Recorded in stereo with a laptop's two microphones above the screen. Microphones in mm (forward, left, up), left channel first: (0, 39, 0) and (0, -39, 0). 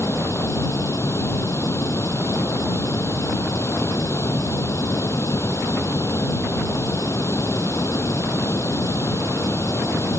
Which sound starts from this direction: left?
Running water, at 0.0 s.